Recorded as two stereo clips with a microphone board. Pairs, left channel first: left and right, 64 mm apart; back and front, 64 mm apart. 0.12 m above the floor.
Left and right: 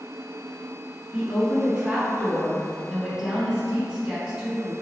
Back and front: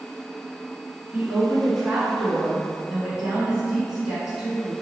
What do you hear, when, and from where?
1.1 s a woman speaking: 55° right, 1.1 m